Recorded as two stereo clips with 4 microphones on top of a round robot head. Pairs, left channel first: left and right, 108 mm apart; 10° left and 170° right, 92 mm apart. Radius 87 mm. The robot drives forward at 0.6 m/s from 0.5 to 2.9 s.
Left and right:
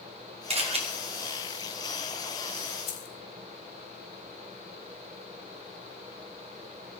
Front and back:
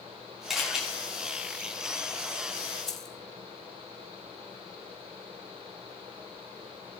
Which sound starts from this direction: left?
Keys jangling, at 2.9 s.